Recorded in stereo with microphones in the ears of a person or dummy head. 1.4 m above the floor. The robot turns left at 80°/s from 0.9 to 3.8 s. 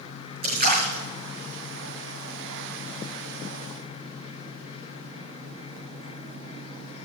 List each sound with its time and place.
0.4 s a splash: 50° right (ahead or behind), 5.5 m; by 1.0 s 40° right (ahead or behind), 5.5 m